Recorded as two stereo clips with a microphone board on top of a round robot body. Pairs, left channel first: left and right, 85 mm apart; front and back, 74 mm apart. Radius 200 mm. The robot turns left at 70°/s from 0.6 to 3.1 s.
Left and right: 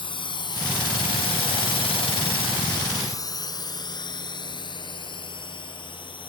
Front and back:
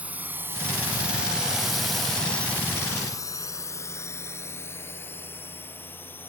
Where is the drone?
110° left; by 6.3 s 65° left.